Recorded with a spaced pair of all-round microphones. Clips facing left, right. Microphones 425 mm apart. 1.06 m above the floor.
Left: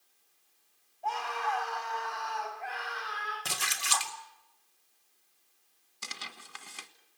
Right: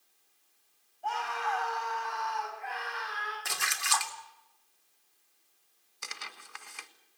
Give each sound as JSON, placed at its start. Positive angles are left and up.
{"t": 1.0, "sound": "a scream", "side_deg": -30, "distance_m": 5.0}
{"t": 3.5, "sound": "a splash", "side_deg": 50, "distance_m": 2.0}
{"t": 6.0, "sound": "tearing paper", "side_deg": 50, "distance_m": 1.6}